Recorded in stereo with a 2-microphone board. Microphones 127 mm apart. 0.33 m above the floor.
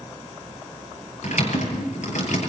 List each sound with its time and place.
1.2 s typing on a keyboard: 75° left (ahead or behind), 7 m